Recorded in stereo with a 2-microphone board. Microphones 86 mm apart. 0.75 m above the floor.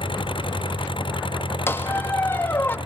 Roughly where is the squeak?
Left.